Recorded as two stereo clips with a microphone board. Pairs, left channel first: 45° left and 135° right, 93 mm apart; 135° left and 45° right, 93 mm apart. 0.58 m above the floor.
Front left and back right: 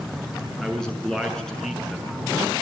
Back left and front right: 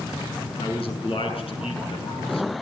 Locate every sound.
0.6 s a man speaking: 130° left, 6.5 m